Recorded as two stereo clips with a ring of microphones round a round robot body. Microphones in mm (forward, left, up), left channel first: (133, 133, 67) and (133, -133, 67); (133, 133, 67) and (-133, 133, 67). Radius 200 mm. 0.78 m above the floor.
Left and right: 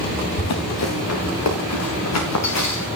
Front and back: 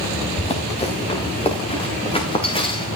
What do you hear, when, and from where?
0.4 s running footsteps: 65° left, 5 m; by 2.9 s 70° left, 7 m